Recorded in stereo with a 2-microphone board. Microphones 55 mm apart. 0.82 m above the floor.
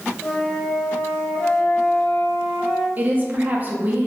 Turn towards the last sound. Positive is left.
turn(degrees=-35)  # may be behind; listen again after turning